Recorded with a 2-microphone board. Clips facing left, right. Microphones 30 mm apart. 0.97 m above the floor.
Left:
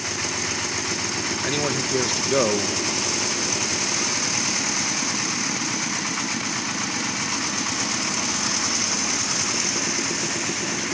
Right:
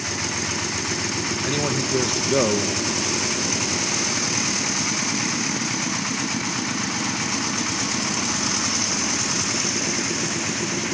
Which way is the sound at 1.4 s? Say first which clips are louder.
Even; 10° left (ahead or behind).